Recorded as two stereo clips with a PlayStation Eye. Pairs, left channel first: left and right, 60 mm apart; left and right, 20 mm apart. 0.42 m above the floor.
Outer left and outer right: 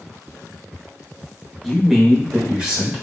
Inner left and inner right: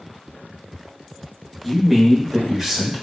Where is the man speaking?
Centre (ahead or behind), 0.8 m; by 3.0 s 15° right (ahead or behind), 1.3 m.